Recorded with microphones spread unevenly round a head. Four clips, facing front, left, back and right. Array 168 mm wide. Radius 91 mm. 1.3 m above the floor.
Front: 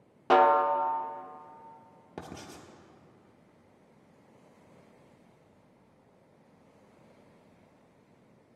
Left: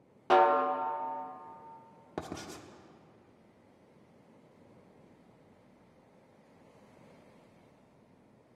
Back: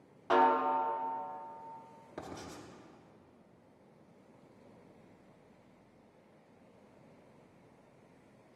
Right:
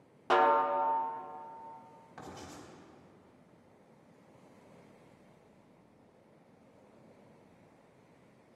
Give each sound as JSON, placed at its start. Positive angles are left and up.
{"t": 0.3, "sound": "a snare drum", "azimuth_deg": 10, "distance_m": 0.7}
{"t": 2.2, "sound": "writing", "azimuth_deg": 65, "distance_m": 1.1}